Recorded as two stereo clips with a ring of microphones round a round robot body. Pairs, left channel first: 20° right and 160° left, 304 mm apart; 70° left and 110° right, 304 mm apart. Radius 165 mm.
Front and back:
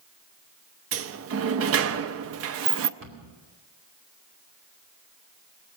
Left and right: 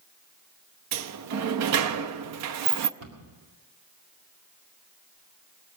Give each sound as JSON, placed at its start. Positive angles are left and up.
{"t": 0.9, "sound": "a sliding door", "azimuth_deg": -155, "distance_m": 0.5}
{"t": 3.0, "sound": "a cupboard door", "azimuth_deg": -150, "distance_m": 2.5}